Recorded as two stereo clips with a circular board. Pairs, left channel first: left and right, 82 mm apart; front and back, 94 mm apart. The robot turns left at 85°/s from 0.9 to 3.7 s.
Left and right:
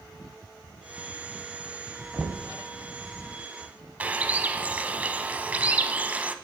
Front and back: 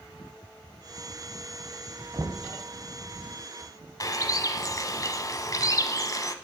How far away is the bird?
About 0.6 m.